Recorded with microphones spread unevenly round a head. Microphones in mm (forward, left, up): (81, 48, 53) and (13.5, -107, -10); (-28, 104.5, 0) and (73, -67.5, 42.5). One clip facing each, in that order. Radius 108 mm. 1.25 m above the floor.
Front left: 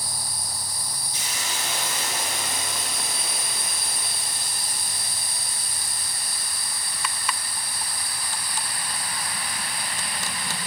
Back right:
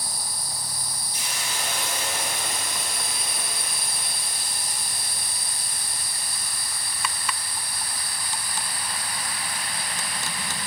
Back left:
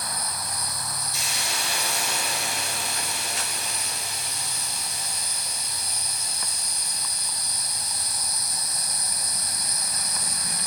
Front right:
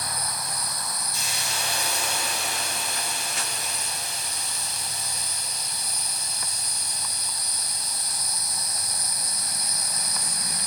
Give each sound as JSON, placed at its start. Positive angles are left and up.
{"t": 1.1, "sound": "a hiss", "azimuth_deg": 95, "distance_m": 9.0}